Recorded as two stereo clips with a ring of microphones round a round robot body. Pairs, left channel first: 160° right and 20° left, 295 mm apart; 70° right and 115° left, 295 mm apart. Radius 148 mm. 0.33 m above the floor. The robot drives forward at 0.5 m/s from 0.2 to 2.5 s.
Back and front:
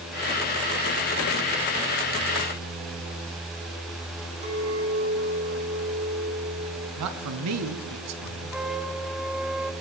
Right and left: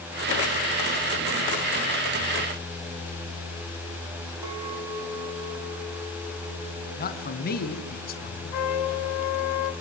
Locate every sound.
4.4 s a clink: 95° left, 8.5 m
7.0 s a man speaking: 10° right, 3 m
8.5 s a trumpet: 65° right, 1.3 m